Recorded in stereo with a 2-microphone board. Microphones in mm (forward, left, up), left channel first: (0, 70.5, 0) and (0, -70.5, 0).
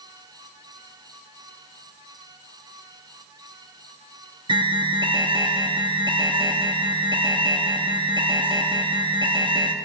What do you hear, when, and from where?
4.5 s an alarm: 35° right (ahead or behind), 0.9 m